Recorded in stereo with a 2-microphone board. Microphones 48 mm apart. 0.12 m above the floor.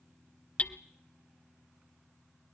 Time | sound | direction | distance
0.6 | hammering | 25° left (ahead or behind) | 0.8 m